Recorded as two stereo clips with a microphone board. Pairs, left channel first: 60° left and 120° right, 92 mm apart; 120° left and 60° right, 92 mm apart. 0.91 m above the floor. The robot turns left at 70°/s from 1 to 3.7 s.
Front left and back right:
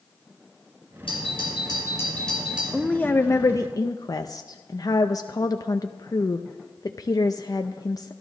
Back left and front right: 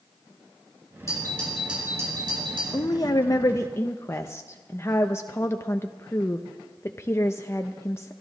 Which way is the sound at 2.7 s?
140° left.